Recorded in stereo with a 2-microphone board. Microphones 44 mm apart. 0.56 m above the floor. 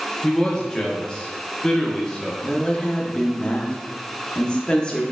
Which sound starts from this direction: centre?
A man speaking, at 0.2 s.